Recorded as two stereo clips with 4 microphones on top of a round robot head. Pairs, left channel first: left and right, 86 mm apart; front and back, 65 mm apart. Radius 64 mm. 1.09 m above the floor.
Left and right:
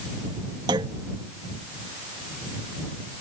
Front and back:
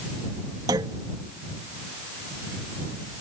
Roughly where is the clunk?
Behind right.